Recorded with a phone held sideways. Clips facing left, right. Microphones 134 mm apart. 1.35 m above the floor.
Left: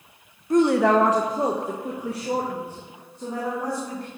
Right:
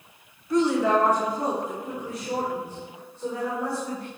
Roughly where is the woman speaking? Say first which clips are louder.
Left 3 dB; left.